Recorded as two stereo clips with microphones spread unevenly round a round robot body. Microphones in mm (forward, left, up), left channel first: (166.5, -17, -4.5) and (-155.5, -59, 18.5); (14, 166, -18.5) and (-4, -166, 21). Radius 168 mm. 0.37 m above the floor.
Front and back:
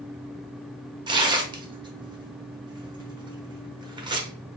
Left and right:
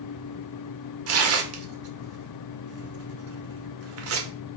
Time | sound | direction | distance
1.1 | tearing paper | 100° right | 0.6 m